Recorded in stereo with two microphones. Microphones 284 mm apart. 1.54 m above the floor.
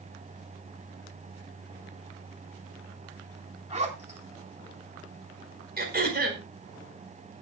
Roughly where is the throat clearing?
Right.